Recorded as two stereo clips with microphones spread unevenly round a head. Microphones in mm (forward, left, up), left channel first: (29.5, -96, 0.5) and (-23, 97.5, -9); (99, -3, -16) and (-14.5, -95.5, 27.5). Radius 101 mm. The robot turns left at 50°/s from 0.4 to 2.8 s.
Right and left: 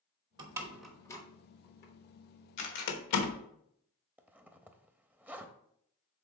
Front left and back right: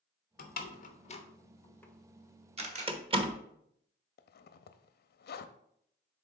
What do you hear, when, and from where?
0.4 s a door slam: 35° left, 1.0 m; by 3.4 s 85° right, 1.0 m
2.6 s a camera shutter: 100° right, 1.5 m; by 2.9 s 110° right, 1.5 m
4.2 s a zipper: 20° left, 0.5 m